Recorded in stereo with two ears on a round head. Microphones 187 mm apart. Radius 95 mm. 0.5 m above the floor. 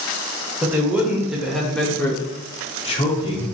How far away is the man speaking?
About 2.5 m.